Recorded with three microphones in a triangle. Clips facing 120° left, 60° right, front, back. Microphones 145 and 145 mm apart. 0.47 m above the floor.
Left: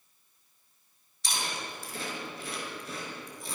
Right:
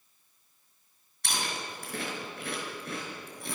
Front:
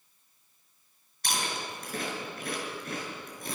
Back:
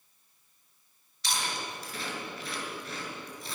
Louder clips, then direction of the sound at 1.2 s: Right 1 dB, front 1 dB; 35° right.